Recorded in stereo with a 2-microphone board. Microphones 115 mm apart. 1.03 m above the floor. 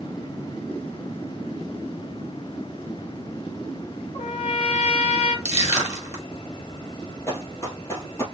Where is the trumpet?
60° left (ahead or behind), 3.5 m.